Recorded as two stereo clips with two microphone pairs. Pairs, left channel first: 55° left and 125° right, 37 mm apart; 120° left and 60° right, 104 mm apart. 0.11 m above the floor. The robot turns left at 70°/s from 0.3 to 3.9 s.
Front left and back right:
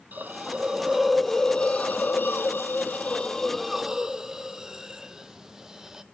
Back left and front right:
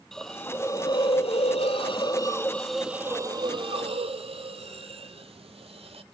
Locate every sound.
0.1 s a hiss: 155° right, 0.7 m; by 6.0 s 50° right, 0.7 m